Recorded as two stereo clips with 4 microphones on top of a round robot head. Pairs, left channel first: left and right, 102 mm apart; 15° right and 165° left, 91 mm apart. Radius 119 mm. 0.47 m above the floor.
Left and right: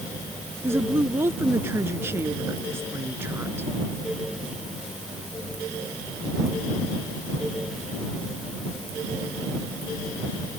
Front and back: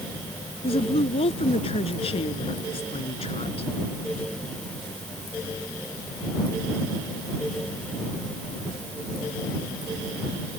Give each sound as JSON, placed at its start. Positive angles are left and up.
{"t": 0.6, "sound": "a woman speaking", "azimuth_deg": -20}